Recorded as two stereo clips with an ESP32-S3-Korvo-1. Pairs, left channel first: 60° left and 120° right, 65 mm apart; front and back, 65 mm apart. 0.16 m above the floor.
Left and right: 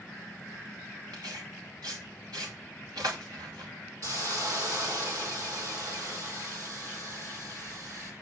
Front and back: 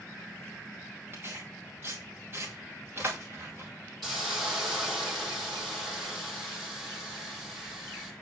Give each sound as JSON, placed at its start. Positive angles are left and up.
{"t": 1.1, "sound": "tearing paper", "azimuth_deg": -125, "distance_m": 3.5}
{"t": 4.0, "sound": "a hiss", "azimuth_deg": -90, "distance_m": 5.0}